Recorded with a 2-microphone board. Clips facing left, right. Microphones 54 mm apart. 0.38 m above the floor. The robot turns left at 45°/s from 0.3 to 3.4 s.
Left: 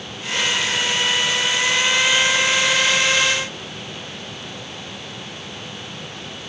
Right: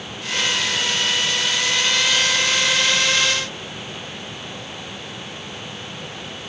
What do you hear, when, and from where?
Only background noise.